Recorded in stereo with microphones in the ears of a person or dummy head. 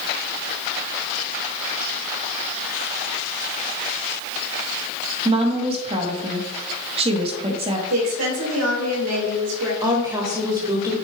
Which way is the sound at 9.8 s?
20° right (ahead or behind).